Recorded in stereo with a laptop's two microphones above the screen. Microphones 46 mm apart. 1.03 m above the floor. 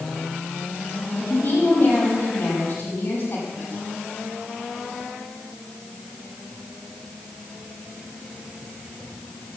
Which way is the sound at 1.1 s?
35° left (ahead or behind).